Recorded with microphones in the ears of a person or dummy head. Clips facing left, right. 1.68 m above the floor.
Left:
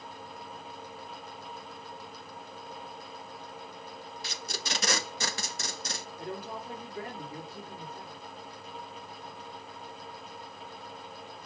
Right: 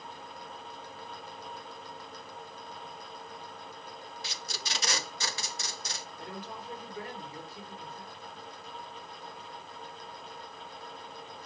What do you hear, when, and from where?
4.2 s tape being pulled: 45° left (ahead or behind), 0.5 m
6.2 s a woman speaking: 40° left (ahead or behind), 3 m